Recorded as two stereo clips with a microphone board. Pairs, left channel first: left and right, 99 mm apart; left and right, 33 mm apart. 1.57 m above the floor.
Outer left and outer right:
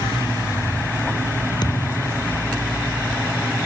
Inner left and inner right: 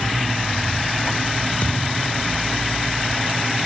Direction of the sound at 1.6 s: 45° left (ahead or behind).